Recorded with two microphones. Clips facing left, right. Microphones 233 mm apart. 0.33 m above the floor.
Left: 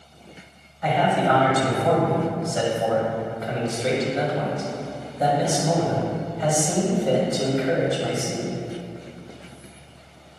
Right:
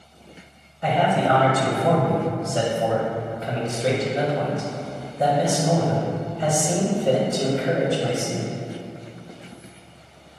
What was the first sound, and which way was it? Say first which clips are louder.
A man speaking: right 1 dB; 25° right (ahead or behind).